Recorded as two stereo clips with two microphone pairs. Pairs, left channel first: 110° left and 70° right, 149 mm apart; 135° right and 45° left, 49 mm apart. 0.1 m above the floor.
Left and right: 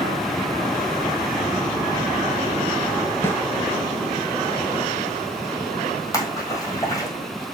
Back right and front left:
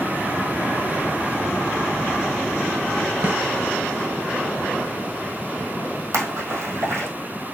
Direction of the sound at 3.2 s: 45° left.